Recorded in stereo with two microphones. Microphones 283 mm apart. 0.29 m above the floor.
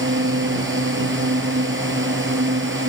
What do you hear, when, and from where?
0.0 s a drone: 40° right (ahead or behind)